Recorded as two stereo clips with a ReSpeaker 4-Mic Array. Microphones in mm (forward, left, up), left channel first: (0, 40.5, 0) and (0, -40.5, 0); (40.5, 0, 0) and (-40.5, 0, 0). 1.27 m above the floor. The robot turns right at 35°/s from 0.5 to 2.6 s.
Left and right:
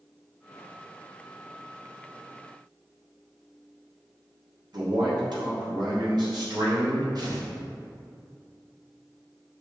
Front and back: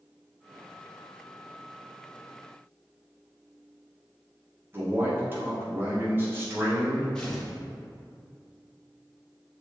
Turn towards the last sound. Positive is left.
turn(degrees=-80)